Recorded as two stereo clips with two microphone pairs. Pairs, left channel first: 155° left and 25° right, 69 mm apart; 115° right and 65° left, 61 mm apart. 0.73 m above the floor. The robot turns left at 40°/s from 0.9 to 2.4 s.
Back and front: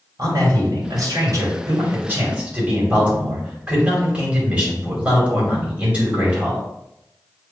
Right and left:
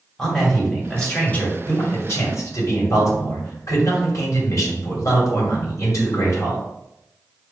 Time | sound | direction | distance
0.2 | a man speaking | 35° right | 2.5 m